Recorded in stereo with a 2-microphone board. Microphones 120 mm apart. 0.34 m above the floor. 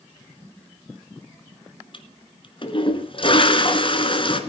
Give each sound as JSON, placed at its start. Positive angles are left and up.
{"t": 1.9, "sound": "a toilet flushing", "side_deg": 45, "distance_m": 1.5}